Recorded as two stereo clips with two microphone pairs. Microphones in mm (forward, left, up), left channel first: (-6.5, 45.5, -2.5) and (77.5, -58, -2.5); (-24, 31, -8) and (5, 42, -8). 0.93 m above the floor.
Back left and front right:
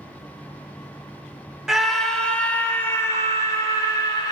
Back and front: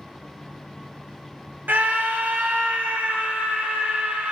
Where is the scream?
35° left, 1.7 m; by 4.3 s 70° left, 2.5 m.